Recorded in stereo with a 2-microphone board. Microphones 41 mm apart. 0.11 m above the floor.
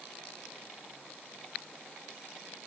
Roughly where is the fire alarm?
No fire alarm in this recording.